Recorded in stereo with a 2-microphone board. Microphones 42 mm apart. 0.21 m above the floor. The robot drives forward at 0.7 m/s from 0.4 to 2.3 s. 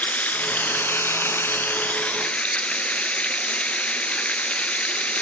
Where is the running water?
40° left (ahead or behind), 0.8 m; by 5.2 s 30° left (ahead or behind), 0.9 m.